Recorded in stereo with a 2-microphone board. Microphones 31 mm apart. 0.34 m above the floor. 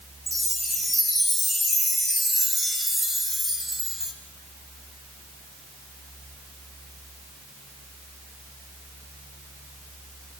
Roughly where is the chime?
Centre.